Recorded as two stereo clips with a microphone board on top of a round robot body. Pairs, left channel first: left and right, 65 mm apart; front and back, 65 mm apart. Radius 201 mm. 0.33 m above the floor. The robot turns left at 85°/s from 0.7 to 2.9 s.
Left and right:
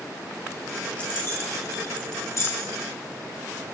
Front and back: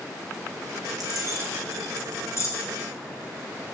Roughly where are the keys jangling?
Behind.